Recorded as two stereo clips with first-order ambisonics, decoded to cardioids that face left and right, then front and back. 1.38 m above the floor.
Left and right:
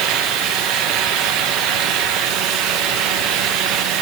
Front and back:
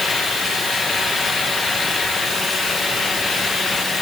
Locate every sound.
Only background noise.